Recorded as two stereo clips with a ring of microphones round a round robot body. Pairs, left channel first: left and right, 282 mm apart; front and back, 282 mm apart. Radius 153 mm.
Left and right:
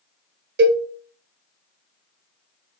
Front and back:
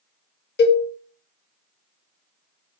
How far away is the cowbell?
About 0.6 m.